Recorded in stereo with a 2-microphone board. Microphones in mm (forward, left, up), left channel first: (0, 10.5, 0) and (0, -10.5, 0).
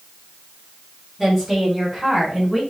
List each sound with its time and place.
1.2 s a woman speaking: 25° right (ahead or behind), 4 m; by 2.6 s 20° right (ahead or behind), 6 m